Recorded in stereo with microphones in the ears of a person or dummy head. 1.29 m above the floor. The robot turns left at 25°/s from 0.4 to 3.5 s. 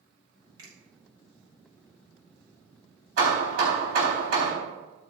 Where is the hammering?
75° right (ahead or behind), 4 m; by 4.5 s 65° right (ahead or behind), 4 m.